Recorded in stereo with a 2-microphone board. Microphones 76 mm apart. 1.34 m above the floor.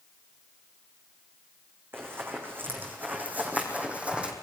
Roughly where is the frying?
I don't hear frying.